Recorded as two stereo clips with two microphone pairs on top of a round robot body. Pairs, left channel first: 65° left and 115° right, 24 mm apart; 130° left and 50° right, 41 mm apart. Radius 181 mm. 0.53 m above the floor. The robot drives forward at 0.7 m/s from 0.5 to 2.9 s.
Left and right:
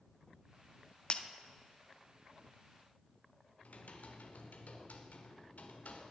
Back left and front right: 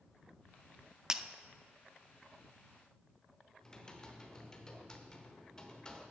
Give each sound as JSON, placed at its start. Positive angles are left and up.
{"t": 1.1, "sound": "breaking glass", "azimuth_deg": 20, "distance_m": 0.7}
{"t": 3.6, "sound": "typing on a keyboard", "azimuth_deg": 55, "distance_m": 1.3}